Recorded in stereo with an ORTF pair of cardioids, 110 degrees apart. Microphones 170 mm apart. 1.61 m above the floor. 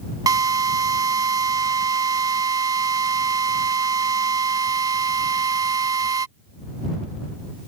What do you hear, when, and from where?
0.3 s a drill: 20° right